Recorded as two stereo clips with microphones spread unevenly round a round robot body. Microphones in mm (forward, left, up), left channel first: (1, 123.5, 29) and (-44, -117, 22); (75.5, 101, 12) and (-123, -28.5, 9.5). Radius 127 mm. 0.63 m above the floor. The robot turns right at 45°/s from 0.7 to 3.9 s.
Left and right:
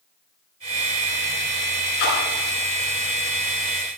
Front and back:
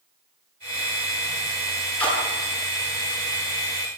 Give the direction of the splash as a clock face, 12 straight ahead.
8 o'clock.